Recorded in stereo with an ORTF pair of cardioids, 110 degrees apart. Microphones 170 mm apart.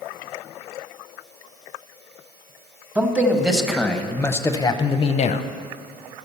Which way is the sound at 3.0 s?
10° right.